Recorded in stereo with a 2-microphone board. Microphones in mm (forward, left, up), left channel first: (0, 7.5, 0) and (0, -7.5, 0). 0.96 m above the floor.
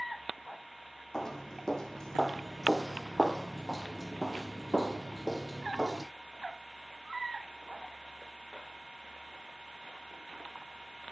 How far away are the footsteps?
About 2.5 m.